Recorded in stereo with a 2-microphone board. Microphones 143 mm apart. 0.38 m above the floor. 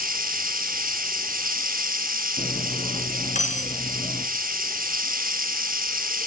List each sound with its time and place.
0.0 s running water: 85° right, 2.5 m
2.4 s cutlery clinking: 60° left (ahead or behind), 3 m